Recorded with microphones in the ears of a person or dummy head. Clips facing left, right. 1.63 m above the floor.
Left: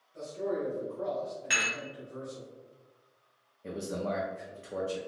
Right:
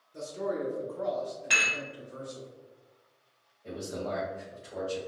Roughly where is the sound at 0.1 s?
Right.